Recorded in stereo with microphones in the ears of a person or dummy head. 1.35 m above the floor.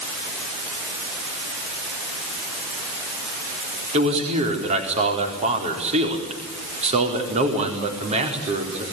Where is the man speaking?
40° right (ahead or behind), 4.5 m.